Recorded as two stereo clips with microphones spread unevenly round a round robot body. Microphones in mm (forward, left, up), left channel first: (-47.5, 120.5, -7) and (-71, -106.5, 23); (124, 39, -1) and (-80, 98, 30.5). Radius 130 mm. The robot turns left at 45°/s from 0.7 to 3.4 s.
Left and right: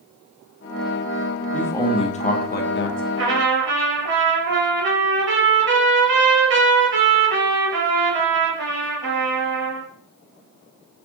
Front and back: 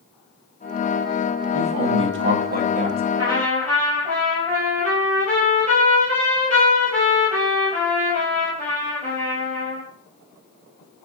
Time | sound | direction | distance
1.5 | a man speaking | 165° left | 1.6 m
3.2 | a trumpet | 120° right | 3 m